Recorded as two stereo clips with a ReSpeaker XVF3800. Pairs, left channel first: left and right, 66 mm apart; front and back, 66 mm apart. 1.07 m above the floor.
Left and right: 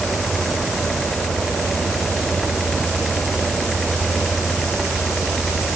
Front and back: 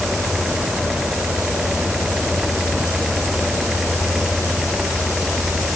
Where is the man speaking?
I don't hear a man speaking.